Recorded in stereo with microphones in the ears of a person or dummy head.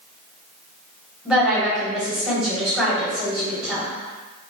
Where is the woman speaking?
10° right (ahead or behind), 1.2 m.